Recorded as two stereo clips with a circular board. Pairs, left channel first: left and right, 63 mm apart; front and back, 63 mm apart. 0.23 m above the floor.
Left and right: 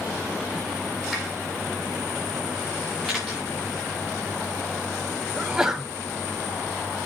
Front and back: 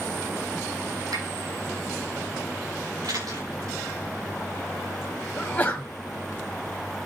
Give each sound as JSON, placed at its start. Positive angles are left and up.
{"t": 1.1, "sound": "a finger snap", "azimuth_deg": 180, "distance_m": 8.0}
{"t": 3.0, "sound": "a camera shutter", "azimuth_deg": 170, "distance_m": 7.5}
{"t": 5.4, "sound": "a sneeze", "azimuth_deg": -25, "distance_m": 1.0}